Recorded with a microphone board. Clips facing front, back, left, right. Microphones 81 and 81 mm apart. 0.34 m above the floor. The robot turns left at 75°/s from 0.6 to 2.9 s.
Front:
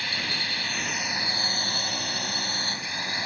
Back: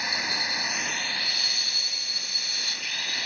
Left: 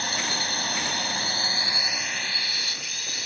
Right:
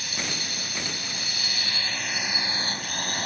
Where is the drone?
110° left; by 3.2 s 60° right.